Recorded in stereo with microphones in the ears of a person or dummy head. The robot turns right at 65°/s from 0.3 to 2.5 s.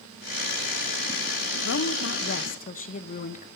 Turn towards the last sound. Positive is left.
turn(degrees=135)